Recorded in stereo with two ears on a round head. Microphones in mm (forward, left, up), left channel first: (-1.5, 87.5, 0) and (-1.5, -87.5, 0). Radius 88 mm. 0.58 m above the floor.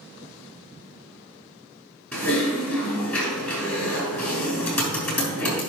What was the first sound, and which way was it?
Typing on a keyboard, 5° left (ahead or behind).